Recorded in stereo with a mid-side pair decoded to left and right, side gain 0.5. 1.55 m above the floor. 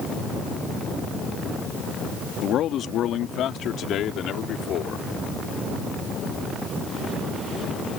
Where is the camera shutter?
No camera shutter in this recording.